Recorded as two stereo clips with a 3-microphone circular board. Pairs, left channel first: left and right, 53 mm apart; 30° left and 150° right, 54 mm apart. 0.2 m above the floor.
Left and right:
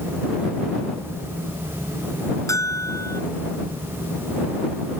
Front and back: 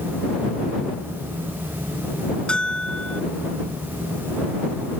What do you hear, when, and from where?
2.5 s a bell: 100° left